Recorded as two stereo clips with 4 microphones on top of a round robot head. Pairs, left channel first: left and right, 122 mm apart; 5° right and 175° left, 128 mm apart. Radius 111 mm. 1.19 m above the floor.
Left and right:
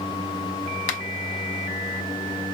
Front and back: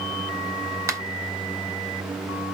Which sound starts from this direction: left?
A finger snap, at 0.9 s.